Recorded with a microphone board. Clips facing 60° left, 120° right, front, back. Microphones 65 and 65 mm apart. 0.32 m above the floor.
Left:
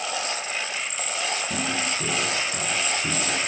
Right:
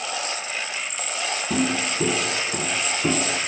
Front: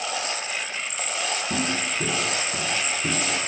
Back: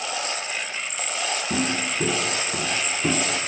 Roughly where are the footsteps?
Right.